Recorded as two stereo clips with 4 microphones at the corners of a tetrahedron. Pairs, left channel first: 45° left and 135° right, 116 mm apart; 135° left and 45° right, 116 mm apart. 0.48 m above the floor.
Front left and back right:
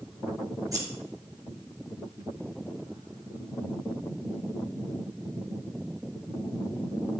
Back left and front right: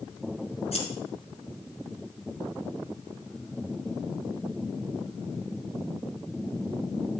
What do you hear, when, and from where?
0.7 s scissors: 165° left, 2.5 m